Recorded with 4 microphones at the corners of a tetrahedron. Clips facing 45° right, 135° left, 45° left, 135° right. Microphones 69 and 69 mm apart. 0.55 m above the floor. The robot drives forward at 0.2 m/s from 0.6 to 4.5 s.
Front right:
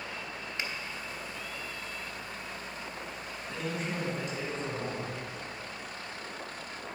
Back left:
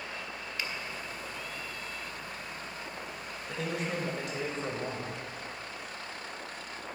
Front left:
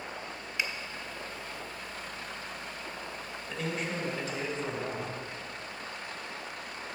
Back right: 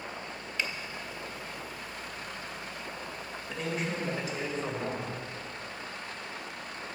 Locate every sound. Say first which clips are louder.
0.6 s a finger snap: front right 1 dB, even; 15° right, 0.8 m
3.5 s a man speaking: back left 1 dB, back right 1 dB; 140° left, 1.8 m; by 5.1 s 145° left, 2.0 m